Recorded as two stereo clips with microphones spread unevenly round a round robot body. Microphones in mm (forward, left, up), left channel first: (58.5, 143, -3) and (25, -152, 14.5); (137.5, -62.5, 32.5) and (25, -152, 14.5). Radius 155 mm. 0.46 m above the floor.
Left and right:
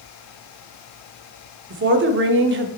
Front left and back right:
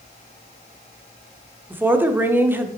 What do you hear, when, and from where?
1.7 s a woman speaking: 85° right, 0.8 m